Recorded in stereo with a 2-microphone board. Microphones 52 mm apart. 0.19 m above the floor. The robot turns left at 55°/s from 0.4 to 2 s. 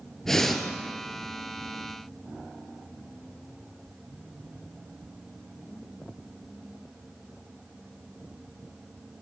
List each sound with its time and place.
0.2 s breathing: 10° left (ahead or behind), 1.7 m; by 0.6 s 5° right (ahead or behind), 1.7 m